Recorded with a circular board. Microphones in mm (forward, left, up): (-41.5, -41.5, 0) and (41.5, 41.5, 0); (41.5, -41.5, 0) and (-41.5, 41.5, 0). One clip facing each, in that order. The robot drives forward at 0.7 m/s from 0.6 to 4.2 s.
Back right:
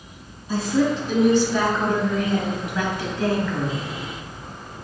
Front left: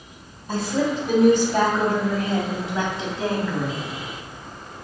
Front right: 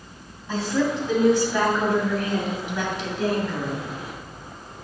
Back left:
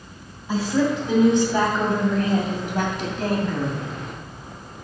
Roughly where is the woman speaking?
Ahead left.